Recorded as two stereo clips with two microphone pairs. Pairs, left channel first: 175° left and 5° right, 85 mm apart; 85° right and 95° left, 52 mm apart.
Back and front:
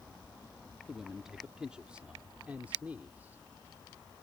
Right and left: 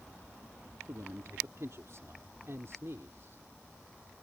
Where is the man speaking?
80° left; by 3.4 s 65° left.